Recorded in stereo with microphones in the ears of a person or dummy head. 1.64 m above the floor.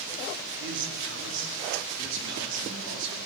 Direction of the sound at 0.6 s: 65° right (ahead or behind).